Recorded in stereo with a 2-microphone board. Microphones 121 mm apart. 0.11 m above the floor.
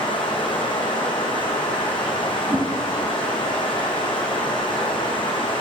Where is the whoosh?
25° right (ahead or behind), 0.8 m.